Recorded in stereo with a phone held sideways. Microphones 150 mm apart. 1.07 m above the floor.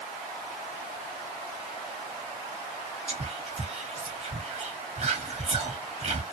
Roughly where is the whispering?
Right.